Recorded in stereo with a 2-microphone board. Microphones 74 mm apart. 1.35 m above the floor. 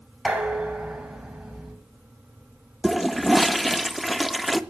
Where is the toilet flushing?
Centre (ahead or behind), 0.6 m.